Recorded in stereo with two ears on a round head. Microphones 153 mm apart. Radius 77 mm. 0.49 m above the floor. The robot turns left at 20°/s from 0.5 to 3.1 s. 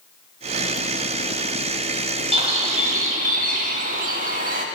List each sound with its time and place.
2.3 s a bird: 30° right (ahead or behind), 0.8 m; by 4.7 s 45° right (ahead or behind), 0.8 m